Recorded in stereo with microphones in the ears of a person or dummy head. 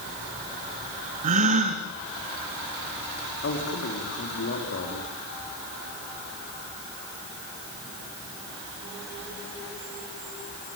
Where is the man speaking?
60° left (ahead or behind), 4 m.